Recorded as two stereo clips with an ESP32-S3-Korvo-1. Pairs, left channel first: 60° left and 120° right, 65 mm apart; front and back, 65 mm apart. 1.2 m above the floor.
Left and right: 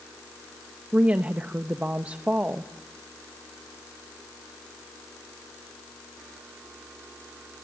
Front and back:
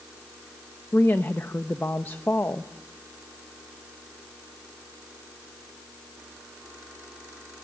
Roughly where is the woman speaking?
Ahead right.